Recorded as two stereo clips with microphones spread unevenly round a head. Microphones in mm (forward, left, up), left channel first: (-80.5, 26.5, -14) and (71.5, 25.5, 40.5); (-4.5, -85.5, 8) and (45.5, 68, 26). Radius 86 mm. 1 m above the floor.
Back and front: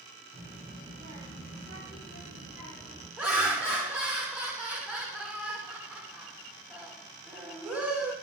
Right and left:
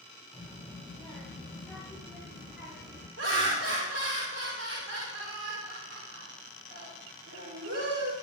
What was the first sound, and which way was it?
A child speaking, 15° right.